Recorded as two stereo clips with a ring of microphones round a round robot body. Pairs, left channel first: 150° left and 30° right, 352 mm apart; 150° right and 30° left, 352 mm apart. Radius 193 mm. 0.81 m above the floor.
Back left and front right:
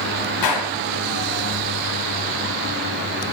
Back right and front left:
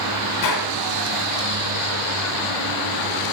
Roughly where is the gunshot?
Behind.